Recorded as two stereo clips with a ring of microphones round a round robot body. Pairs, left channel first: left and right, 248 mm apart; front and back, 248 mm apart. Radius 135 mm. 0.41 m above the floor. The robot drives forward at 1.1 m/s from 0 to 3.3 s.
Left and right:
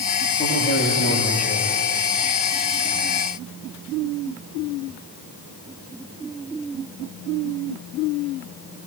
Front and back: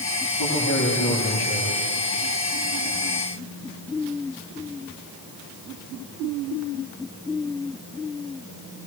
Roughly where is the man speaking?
Ahead left.